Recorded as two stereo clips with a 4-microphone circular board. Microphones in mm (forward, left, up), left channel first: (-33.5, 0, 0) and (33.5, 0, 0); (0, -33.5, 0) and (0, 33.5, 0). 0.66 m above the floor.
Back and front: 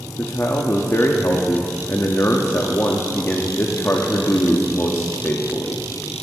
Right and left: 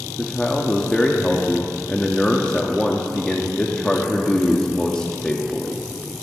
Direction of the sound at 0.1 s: 160° right.